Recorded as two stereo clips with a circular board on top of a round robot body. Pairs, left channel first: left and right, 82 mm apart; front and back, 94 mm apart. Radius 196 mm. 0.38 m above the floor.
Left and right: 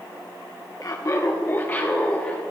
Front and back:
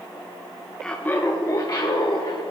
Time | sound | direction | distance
0.8 | laughter | 80° left | 1.3 m